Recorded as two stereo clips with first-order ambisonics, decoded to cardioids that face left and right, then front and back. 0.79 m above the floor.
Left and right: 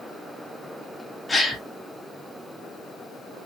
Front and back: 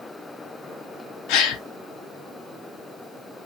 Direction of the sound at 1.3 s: 10° left.